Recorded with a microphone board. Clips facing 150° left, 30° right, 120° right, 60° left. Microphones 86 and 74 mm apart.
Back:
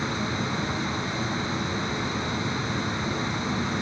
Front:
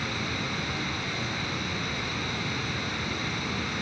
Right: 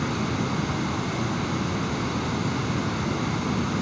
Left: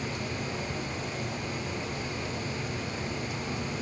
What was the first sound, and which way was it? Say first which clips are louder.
Running water: back 4 dB, right 8 dB; 145° right.